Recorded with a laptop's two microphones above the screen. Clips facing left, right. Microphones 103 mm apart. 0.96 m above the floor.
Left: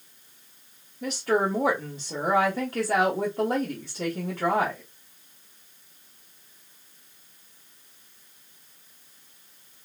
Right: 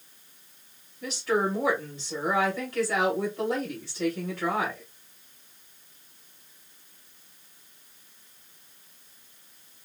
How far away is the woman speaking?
About 1.5 m.